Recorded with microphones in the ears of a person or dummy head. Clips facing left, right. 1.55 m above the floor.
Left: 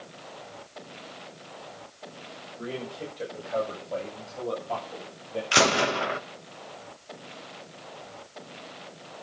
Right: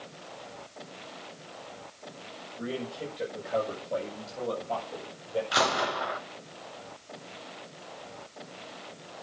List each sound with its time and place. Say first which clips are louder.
2.6 s a man speaking: right 1 dB; 5° right (ahead or behind), 8 m; by 5.4 s 20° right (ahead or behind), 9 m
5.5 s a gunshot: left 9 dB; 30° left (ahead or behind), 1.2 m